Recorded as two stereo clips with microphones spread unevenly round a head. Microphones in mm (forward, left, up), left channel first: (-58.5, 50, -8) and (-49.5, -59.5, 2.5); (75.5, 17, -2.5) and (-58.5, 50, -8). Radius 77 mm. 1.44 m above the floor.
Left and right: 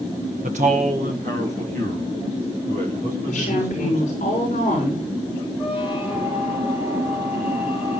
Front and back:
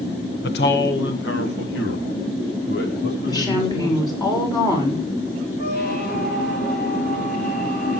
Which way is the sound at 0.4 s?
40° right.